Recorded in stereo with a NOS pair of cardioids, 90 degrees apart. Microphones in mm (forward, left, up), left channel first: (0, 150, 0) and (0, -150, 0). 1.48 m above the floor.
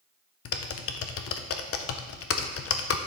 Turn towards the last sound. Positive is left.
turn(degrees=55)